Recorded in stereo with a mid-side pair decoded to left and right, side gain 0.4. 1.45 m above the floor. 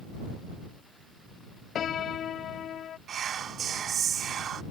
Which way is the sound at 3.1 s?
65° right.